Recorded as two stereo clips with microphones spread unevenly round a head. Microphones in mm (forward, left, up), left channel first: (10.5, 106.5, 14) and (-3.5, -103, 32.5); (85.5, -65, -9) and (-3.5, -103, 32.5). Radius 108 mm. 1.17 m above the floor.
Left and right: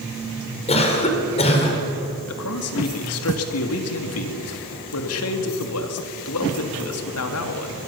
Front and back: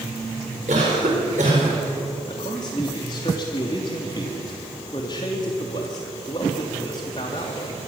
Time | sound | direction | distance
0.7 | a cough | 150° left | 4.5 m
2.3 | a man speaking | 85° left | 2.5 m